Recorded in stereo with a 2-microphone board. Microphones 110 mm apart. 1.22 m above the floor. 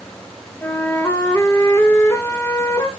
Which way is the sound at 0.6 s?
20° left (ahead or behind).